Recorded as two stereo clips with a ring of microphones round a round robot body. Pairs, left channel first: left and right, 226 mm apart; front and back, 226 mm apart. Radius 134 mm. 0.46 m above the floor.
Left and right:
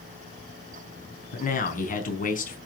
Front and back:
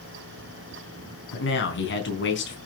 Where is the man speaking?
35° left, 4 m.